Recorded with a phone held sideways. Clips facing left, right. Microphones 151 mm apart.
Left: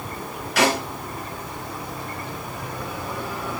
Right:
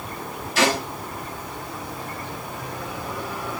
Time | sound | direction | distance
0.6 | a snare drum | 60° left (ahead or behind) | 5.5 m